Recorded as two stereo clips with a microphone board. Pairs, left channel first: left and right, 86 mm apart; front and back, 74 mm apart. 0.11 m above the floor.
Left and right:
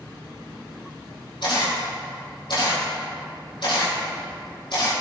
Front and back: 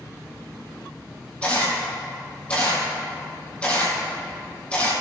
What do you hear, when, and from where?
1.4 s a camera shutter: 75° left, 4 m